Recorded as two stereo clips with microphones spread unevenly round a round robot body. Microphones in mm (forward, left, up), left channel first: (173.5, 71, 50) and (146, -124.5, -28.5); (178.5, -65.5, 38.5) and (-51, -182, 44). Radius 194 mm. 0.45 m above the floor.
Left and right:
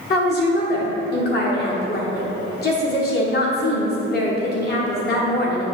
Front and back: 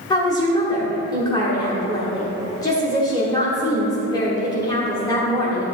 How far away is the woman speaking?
About 1.2 m.